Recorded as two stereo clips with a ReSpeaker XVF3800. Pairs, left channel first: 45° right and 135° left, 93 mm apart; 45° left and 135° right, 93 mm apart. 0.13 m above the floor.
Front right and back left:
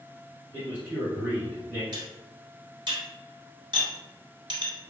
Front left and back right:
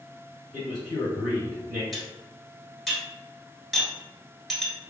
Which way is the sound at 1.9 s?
135° left.